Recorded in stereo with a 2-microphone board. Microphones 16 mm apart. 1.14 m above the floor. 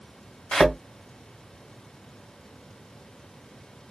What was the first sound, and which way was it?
A thud, 60° left (ahead or behind).